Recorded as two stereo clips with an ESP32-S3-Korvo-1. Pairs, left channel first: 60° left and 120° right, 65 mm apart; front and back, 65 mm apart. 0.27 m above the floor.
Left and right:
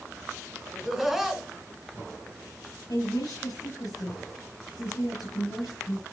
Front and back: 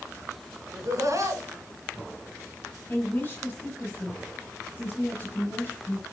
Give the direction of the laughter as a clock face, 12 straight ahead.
7 o'clock.